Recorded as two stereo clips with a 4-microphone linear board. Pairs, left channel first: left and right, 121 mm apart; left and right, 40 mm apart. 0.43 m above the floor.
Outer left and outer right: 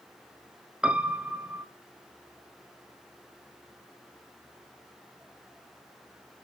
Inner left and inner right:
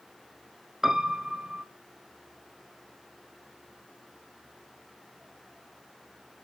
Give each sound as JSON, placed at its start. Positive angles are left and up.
{"t": 0.8, "sound": "a piano", "side_deg": -10, "distance_m": 1.1}